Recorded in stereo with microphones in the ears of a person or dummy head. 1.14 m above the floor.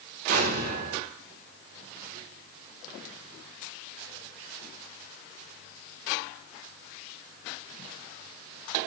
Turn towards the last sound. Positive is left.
turn(degrees=-45)  # may be behind; listen again after turning